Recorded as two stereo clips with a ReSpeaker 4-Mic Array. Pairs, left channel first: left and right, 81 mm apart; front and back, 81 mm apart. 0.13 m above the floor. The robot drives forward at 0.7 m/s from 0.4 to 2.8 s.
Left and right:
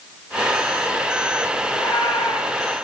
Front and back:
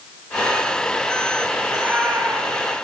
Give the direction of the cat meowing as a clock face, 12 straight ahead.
8 o'clock.